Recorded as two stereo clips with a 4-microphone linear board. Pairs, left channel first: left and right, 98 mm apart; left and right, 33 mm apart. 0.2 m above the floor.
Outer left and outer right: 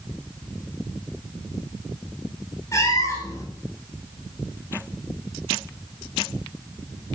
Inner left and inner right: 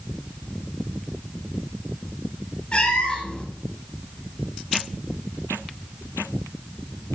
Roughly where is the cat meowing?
Left.